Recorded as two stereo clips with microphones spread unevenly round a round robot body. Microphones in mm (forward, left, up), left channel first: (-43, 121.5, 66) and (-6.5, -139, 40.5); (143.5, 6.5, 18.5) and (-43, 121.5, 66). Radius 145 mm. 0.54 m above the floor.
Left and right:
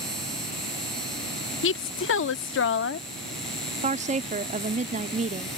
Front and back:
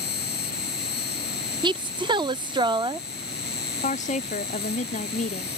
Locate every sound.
0.0 s an insect: 10° left
1.6 s a woman speaking: 75° left
3.8 s a woman speaking: 40° right